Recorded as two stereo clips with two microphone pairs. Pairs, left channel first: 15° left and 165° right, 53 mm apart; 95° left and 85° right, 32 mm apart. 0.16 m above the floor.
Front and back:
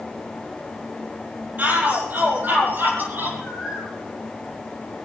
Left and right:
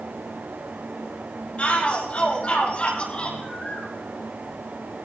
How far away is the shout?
About 5.5 m.